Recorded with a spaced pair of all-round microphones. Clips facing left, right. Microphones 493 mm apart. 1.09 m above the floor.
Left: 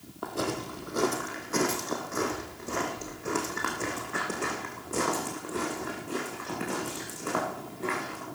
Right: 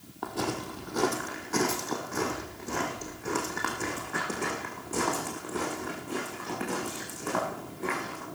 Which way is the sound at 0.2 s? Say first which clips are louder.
Even; 10° right (ahead or behind).